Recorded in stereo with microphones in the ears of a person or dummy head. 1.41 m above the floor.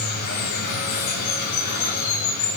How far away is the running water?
About 5 m.